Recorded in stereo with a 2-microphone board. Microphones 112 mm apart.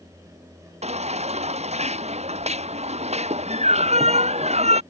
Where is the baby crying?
75° right (ahead or behind).